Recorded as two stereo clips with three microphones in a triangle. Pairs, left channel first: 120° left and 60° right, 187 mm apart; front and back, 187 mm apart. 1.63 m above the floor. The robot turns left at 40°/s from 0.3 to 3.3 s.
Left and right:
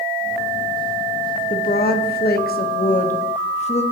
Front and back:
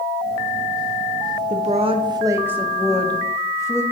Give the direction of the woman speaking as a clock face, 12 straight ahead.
7 o'clock.